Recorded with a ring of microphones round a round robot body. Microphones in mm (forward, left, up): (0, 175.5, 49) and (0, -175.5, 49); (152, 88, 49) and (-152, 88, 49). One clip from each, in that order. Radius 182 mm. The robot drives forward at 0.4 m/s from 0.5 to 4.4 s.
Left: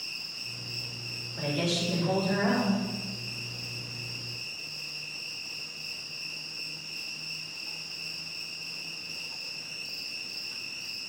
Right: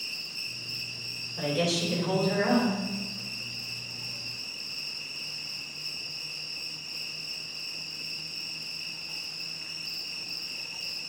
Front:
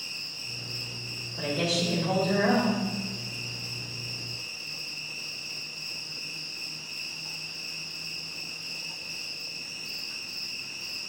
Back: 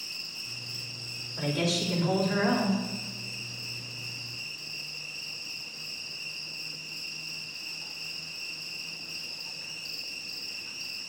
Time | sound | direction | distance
0.0 | an insect | 165° right | 2.5 m
1.4 | a woman speaking | 170° left | 3 m